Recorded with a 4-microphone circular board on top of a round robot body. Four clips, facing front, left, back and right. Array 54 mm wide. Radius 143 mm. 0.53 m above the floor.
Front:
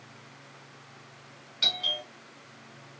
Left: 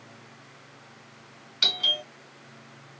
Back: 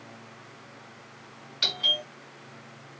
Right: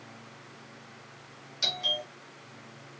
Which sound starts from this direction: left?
A doorbell, at 1.6 s.